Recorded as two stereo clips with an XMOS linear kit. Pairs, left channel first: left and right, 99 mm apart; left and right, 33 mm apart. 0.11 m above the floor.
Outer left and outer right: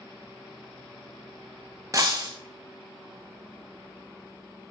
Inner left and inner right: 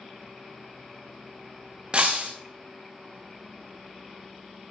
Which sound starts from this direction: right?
Breaking glass, at 1.9 s.